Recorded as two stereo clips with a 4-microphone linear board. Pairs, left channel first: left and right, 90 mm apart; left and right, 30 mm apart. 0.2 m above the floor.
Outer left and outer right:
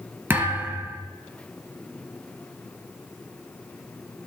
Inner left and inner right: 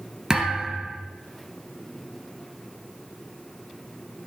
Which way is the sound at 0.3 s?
20° right (ahead or behind).